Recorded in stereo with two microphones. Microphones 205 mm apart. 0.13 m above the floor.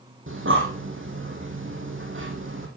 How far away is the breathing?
About 3 m.